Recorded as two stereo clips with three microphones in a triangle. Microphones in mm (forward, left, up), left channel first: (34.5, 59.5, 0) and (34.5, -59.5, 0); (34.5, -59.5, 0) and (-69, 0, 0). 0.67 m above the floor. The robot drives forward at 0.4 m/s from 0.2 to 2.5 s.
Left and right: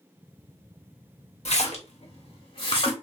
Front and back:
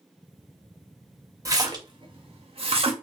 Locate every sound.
1.4 s a splash: 90° left, 0.7 m; by 3.0 s 125° left, 0.9 m